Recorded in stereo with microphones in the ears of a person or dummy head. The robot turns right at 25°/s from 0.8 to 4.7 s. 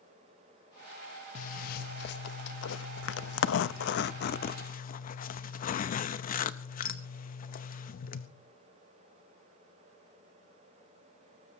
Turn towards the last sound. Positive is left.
turn(degrees=130)